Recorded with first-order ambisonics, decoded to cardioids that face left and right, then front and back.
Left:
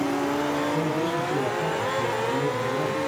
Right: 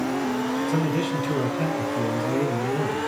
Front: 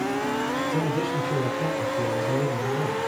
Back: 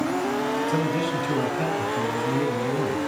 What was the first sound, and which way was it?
A man speaking, 135° right.